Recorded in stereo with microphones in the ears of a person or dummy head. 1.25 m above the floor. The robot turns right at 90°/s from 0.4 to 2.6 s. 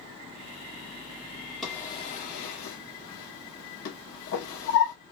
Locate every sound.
1.6 s a drawer: centre (ahead or behind), 1.2 m; by 5.0 s 65° left (ahead or behind), 1.2 m